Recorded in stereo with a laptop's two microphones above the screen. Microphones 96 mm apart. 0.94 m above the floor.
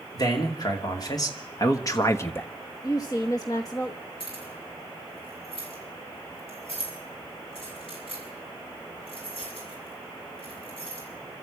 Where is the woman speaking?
40° left (ahead or behind), 1.0 m.